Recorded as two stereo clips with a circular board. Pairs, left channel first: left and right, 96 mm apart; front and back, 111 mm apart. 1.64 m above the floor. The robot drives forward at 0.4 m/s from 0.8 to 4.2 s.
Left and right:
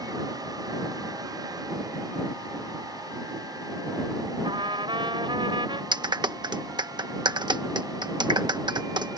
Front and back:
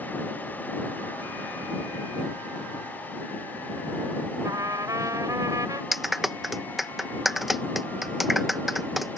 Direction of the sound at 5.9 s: 95° right.